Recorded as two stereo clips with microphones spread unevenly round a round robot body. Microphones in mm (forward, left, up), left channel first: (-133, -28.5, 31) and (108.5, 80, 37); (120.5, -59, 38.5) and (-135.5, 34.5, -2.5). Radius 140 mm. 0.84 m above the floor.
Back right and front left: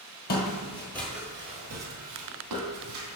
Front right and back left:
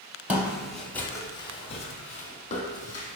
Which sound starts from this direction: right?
Footsteps, at 0.3 s.